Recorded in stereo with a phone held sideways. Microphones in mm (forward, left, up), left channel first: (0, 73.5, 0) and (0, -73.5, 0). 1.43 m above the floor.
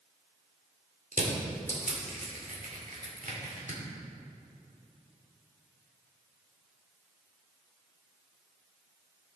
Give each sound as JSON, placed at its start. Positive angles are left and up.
{"t": 1.1, "sound": "crushing", "side_deg": -65, "distance_m": 2.0}